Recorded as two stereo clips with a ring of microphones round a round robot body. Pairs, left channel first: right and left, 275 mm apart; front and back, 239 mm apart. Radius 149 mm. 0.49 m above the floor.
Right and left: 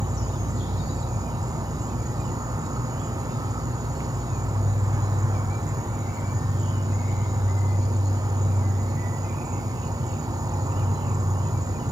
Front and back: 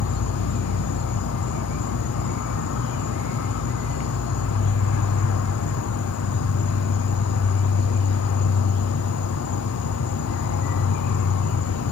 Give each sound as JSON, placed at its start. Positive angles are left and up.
{"t": 0.0, "sound": "an insect", "azimuth_deg": 10, "distance_m": 0.8}